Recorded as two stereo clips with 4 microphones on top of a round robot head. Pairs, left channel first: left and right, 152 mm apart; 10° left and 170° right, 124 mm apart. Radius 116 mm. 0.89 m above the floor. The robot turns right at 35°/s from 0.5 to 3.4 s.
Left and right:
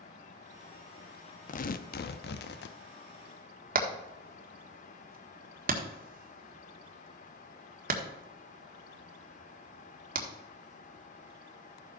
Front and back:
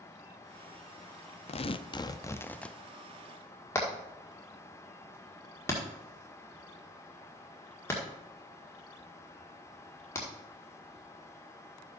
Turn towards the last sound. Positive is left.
turn(degrees=-65)